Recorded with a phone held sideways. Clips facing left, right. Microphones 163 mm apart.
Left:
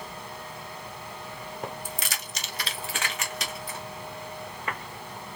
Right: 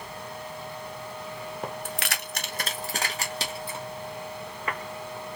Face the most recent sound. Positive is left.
turn(degrees=-25)  # may be behind; listen again after turning